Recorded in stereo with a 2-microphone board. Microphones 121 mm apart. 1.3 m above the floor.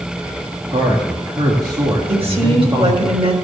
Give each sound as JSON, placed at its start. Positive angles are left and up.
{"t": 0.7, "sound": "a man speaking", "side_deg": -40, "distance_m": 1.9}
{"t": 2.1, "sound": "a woman speaking", "side_deg": -50, "distance_m": 4.0}